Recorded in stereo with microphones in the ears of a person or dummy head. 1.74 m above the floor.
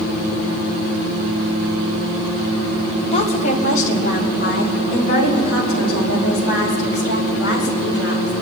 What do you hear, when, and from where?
3.1 s a woman speaking: 35° left (ahead or behind), 1.7 m; by 8.3 s 70° left (ahead or behind), 6.5 m